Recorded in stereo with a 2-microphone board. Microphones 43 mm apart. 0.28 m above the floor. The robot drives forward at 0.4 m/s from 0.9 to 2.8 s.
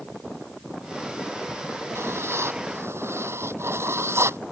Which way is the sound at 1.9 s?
85° right.